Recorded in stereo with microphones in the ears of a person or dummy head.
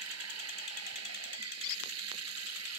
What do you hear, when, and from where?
0.0 s running water: 85° right
1.6 s a squeak: 65° left (ahead or behind)